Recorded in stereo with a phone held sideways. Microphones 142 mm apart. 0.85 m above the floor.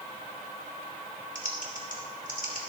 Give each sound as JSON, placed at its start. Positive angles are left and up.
{"t": 1.4, "sound": "typing on a keyboard", "side_deg": 70, "distance_m": 2.5}